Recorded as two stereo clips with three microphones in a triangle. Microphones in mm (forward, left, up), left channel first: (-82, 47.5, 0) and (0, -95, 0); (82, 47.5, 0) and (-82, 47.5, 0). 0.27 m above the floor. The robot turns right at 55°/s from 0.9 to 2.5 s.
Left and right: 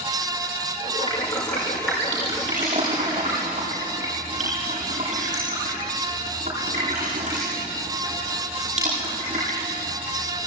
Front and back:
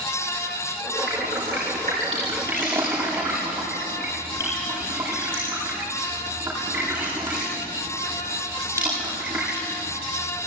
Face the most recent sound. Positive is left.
turn(degrees=-105)